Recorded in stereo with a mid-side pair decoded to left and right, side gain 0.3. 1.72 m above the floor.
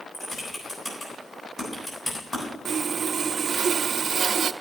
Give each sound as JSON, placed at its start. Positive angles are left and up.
{"t": 0.1, "sound": "typing on a keyboard", "azimuth_deg": 45, "distance_m": 8.5}
{"t": 2.6, "sound": "sawing", "azimuth_deg": -65, "distance_m": 0.6}